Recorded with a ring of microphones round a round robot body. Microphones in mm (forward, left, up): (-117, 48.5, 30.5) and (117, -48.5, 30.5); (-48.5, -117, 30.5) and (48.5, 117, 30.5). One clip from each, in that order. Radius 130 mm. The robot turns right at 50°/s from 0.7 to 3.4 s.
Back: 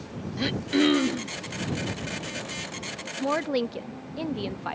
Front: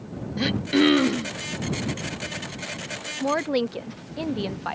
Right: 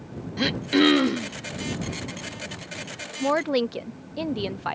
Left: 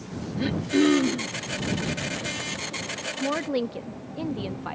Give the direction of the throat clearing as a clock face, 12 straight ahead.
4 o'clock.